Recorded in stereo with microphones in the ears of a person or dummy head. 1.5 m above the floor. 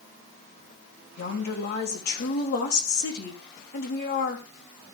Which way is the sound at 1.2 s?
55° left (ahead or behind).